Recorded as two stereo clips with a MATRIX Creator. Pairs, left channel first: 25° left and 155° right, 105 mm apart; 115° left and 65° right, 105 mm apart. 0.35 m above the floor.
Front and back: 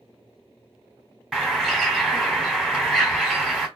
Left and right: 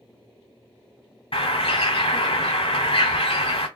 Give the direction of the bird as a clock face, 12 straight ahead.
8 o'clock.